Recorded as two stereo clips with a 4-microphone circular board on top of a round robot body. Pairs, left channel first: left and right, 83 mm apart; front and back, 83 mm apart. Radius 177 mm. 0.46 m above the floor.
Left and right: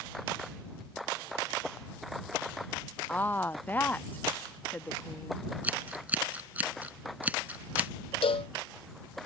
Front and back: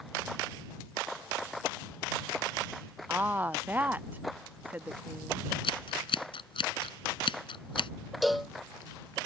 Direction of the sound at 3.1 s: 135° left.